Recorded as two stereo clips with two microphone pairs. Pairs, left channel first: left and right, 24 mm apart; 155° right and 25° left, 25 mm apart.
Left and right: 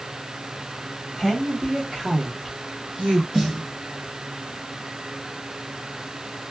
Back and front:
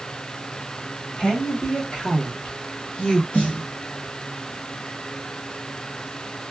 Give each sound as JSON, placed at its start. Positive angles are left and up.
{"t": 1.2, "sound": "a woman speaking", "azimuth_deg": -175, "distance_m": 1.4}
{"t": 3.3, "sound": "a snare drum", "azimuth_deg": -145, "distance_m": 1.8}